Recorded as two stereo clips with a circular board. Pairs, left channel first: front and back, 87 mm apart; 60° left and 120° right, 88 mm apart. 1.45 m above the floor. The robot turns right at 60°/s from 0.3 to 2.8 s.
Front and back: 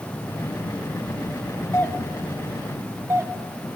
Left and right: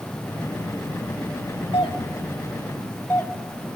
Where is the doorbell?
60° left, 1.4 m; by 3.8 s 125° left, 1.4 m.